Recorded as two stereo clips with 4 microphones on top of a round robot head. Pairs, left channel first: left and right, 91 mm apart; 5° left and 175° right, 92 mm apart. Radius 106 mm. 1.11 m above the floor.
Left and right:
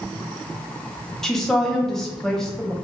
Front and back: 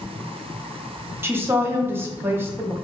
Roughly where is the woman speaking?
Behind.